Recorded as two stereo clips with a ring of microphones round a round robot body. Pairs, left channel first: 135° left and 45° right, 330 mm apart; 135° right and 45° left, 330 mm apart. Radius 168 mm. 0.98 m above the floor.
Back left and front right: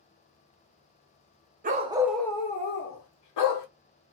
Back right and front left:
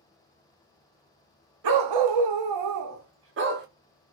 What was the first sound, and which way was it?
A dog barking, 20° left.